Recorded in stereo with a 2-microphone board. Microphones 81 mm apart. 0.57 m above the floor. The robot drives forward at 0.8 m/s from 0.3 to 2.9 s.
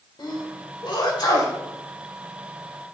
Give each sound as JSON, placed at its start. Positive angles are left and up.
{"t": 0.2, "sound": "a sneeze", "side_deg": 65, "distance_m": 1.8}